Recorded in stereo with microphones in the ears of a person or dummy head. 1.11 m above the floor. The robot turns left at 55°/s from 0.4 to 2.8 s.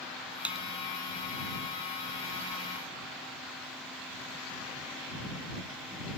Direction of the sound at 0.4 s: 10° right (ahead or behind).